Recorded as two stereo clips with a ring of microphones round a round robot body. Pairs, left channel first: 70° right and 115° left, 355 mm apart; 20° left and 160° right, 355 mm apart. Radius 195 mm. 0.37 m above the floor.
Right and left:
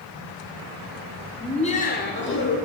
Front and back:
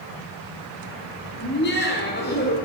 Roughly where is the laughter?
Ahead.